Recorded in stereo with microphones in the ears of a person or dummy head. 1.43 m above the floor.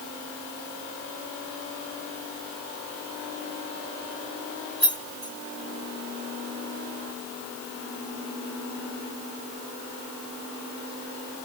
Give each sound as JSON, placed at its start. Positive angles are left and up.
{"t": 4.8, "sound": "keys jangling", "side_deg": 5, "distance_m": 2.5}